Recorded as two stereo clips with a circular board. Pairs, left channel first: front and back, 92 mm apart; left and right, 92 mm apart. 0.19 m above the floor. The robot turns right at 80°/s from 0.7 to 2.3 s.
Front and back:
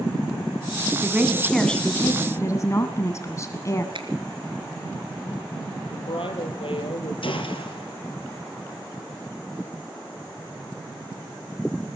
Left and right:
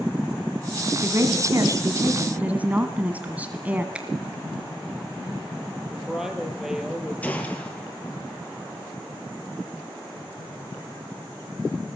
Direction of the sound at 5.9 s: 5° right.